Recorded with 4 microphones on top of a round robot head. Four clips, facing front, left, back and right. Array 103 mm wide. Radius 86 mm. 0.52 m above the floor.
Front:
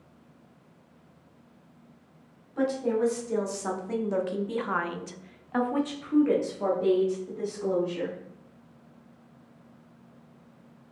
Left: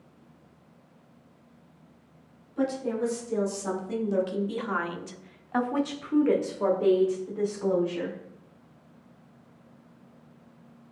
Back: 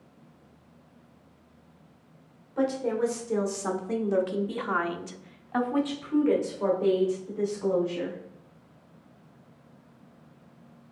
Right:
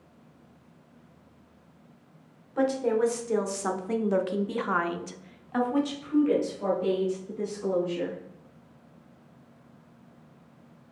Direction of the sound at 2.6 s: 95° right.